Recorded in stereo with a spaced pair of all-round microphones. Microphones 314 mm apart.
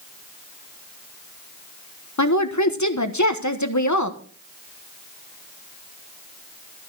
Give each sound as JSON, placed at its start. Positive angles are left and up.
{"t": 2.2, "sound": "a woman speaking", "side_deg": 60, "distance_m": 1.2}